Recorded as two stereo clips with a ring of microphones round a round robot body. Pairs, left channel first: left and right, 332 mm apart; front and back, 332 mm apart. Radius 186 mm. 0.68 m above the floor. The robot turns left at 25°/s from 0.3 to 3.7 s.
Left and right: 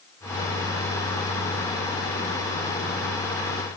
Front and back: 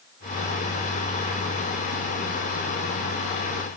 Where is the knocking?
I don't hear knocking.